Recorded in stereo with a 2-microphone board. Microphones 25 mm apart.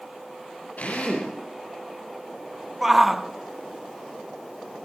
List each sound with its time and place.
0.8 s a drill: 85° left, 9 m
2.8 s a shout: 5° right (ahead or behind), 1.0 m